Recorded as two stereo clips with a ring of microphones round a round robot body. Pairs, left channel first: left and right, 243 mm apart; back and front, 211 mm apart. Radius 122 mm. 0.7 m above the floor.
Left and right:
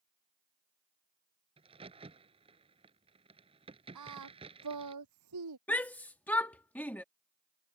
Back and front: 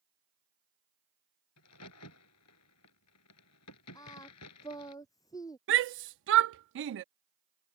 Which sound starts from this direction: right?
Singing, at 4.0 s.